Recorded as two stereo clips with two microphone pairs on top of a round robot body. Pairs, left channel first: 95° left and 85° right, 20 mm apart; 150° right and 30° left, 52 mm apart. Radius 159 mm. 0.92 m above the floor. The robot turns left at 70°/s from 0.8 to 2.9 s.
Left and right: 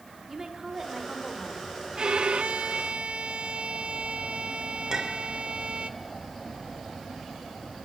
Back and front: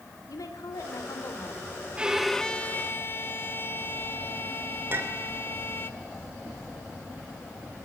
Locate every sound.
0.3 s a woman speaking: 150° right, 3 m; by 1.8 s 140° left, 3 m
1.9 s a violin: 40° right, 1.3 m; by 5.9 s 105° right, 1.3 m
4.9 s a clink: 20° right, 2.5 m